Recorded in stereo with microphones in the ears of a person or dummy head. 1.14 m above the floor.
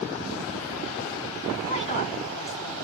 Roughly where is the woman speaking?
Left.